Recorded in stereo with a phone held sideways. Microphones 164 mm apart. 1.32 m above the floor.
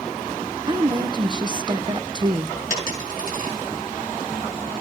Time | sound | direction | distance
0.7 | a woman speaking | 30° right (ahead or behind) | 0.6 m
2.7 | a dropped coin | 65° left (ahead or behind) | 5 m